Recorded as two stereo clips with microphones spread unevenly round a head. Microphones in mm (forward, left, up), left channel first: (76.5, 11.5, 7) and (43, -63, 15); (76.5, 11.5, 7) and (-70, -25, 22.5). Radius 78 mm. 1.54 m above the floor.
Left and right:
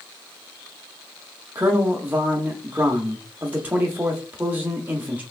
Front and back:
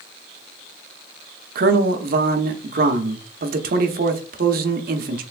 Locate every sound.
1.6 s a man speaking: 170° left, 0.6 m